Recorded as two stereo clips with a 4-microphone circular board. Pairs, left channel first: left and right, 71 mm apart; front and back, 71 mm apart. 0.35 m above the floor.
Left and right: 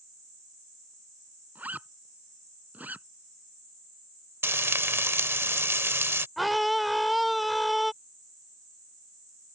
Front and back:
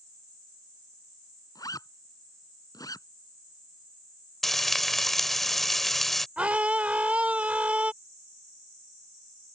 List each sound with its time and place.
1.6 s a zipper: 25° right
4.4 s frying: 85° right
6.4 s a scream: straight behind